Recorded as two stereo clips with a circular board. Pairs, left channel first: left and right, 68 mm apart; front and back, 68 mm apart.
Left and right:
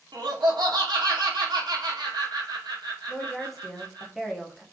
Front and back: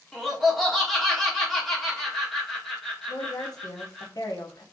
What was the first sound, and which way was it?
Laughter, 90° right.